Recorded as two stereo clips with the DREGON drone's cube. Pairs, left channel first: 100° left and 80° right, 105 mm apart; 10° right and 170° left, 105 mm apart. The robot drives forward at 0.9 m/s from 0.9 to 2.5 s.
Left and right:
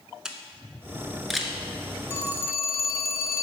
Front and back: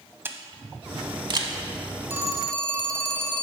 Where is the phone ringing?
115° left, 0.6 m; by 3.4 s 150° left, 0.8 m.